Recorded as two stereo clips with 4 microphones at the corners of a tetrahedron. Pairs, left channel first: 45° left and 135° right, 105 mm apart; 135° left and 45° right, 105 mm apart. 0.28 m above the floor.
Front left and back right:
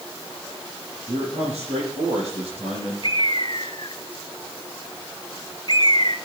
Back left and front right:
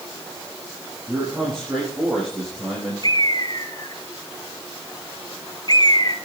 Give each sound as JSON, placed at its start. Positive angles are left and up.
{"t": 1.1, "sound": "a man speaking", "azimuth_deg": -135, "distance_m": 9.0}
{"t": 3.0, "sound": "a bird", "azimuth_deg": 85, "distance_m": 1.2}